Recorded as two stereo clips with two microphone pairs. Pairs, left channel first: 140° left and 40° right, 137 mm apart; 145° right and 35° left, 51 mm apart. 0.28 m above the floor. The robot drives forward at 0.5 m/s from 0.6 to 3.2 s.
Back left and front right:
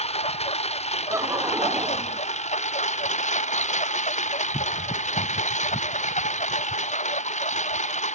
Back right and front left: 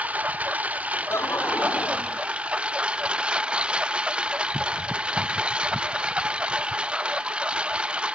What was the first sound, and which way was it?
A lawn mower, 100° left.